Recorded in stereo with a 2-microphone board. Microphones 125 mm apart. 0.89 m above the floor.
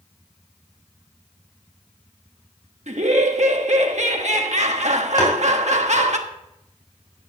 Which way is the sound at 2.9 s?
70° right (ahead or behind).